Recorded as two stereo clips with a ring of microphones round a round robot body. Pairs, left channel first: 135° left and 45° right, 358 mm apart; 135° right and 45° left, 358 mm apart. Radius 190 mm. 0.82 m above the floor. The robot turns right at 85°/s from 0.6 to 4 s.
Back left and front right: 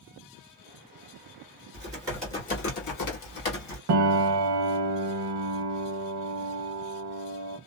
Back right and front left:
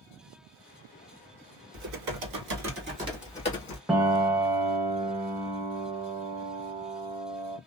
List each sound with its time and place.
1.7 s typing on a keyboard: 5° left, 1.5 m; by 3.8 s straight behind, 1.5 m
3.9 s a piano: 40° right, 0.6 m; by 7.6 s 30° right, 0.6 m